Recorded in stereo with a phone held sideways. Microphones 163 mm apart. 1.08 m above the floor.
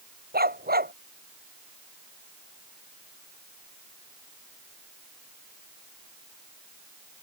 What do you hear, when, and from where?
0.3 s a dog barking: 70° right (ahead or behind)